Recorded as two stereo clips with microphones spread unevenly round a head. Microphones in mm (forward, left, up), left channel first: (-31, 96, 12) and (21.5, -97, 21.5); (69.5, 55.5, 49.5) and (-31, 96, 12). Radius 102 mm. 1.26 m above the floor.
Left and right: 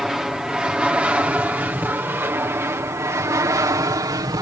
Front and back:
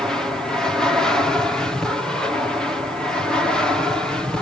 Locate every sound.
0.0 s an aircraft: 165° right; by 4.4 s 135° right